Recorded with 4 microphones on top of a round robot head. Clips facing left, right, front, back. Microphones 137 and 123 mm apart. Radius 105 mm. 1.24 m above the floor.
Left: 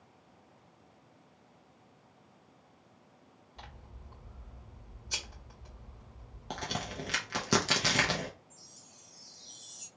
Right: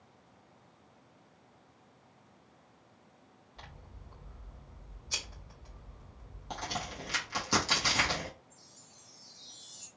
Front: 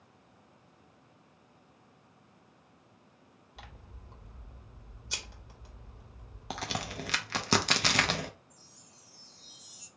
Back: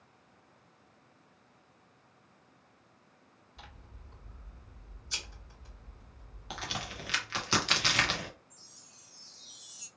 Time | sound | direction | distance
3.6 | scissors | 15° left | 1.8 m
6.5 | a crack | 40° left | 0.8 m
8.5 | a chime | 115° left | 1.2 m